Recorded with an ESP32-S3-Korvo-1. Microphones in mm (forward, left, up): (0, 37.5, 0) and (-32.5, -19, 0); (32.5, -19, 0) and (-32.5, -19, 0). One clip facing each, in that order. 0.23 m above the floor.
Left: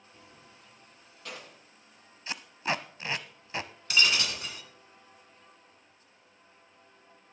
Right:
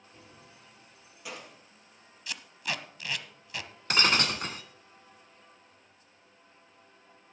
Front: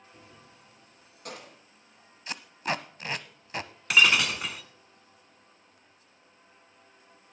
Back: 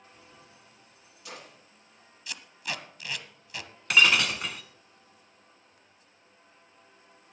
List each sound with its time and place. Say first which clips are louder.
0.1 s keys jangling: right 1 dB, front 1 dB; 50° right, 3 m; by 1.6 s 40° right, 4 m
2.3 s tape being pulled: left 4 dB, front 6 dB; 20° left, 0.6 m
3.9 s breaking glass: right 2 dB, even; 90° right, 1.0 m